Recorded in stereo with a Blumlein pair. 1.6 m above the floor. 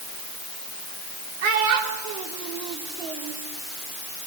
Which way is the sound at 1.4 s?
50° right.